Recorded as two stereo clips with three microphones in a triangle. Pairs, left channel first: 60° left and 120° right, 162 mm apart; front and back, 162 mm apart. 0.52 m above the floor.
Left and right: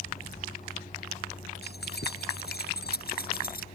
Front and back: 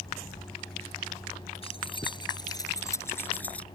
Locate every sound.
1.6 s keys jangling: 55° left; by 3.6 s 85° left